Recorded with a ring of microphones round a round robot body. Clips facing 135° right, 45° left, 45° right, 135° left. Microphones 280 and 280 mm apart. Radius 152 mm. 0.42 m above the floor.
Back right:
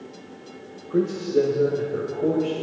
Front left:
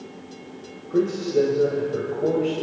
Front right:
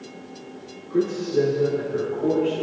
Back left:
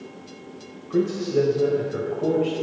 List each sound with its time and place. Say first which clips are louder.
0.9 s a man speaking: even, even; 140° left, 2.5 m